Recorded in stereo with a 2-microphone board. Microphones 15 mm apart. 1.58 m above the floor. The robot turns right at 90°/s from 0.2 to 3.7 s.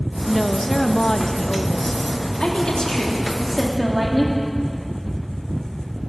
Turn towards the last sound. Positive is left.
turn(degrees=-170)